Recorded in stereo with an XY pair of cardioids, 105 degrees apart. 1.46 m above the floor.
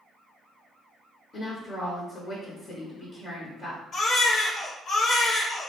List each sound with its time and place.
1.3 s a woman speaking: 50° left, 0.7 m
3.9 s a baby crying: 70° left, 0.9 m